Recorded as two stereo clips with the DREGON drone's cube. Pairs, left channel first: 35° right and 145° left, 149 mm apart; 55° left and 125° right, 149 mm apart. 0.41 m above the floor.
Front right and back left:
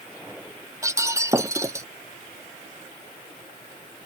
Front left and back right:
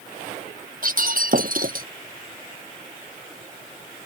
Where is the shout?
I don't hear a shout.